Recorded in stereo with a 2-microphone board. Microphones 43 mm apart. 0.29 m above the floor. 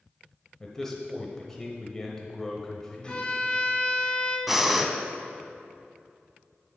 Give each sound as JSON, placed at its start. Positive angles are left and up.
{"t": 0.6, "sound": "a man speaking", "side_deg": 10, "distance_m": 0.9}
{"t": 3.0, "sound": "a violin", "side_deg": 20, "distance_m": 1.5}
{"t": 4.5, "sound": "breathing", "side_deg": -5, "distance_m": 0.6}